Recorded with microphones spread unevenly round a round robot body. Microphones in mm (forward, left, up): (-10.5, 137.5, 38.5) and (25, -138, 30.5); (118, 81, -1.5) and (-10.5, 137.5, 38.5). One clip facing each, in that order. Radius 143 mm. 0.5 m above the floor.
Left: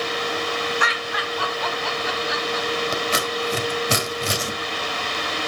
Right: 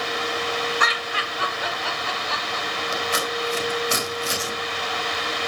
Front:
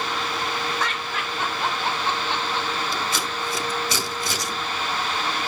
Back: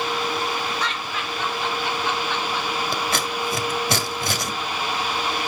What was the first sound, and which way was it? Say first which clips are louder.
Laughter: left 2 dB, even; 45° right.